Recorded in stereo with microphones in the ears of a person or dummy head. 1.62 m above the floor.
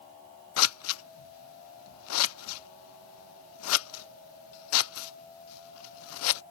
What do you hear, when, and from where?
0.6 s scissors: 85° left